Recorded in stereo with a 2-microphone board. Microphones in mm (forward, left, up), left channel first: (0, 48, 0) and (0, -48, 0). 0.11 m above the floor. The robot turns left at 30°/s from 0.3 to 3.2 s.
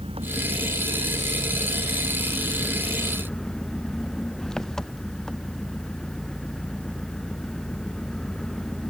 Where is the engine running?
100° right; by 8.9 s 175° left.